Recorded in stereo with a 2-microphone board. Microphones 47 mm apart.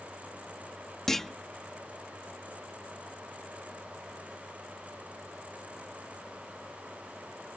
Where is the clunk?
5° left (ahead or behind).